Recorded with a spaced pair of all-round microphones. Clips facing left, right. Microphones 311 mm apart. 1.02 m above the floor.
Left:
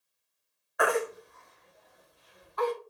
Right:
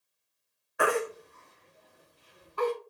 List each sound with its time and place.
0.8 s a baby crying: 35° right (ahead or behind), 1.5 m